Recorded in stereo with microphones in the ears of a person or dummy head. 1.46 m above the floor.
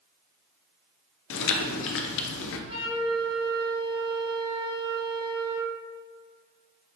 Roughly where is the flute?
Right.